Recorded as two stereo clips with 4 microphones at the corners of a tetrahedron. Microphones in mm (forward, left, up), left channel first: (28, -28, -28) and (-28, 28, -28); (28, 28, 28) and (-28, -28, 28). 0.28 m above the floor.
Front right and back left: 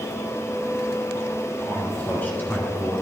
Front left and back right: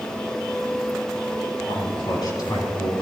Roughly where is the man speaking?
Ahead left.